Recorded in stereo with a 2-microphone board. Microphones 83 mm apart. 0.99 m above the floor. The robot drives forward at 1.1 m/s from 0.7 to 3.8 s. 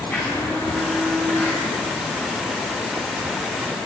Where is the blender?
30° left (ahead or behind), 9 m; by 1.6 s 25° left (ahead or behind), 10 m.